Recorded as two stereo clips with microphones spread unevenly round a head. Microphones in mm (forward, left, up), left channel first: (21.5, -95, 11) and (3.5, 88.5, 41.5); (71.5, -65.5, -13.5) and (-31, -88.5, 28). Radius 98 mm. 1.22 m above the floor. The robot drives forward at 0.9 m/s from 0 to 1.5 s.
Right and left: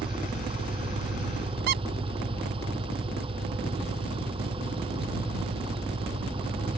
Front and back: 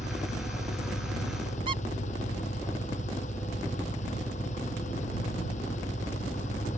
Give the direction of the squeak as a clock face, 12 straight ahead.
7 o'clock.